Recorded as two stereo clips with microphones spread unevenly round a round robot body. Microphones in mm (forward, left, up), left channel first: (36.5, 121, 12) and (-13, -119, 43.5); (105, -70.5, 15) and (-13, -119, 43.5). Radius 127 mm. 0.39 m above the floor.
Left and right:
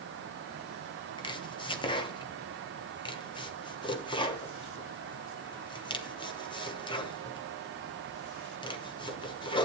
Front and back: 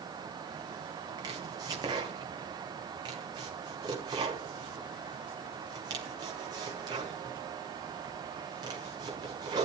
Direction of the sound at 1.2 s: 135° left.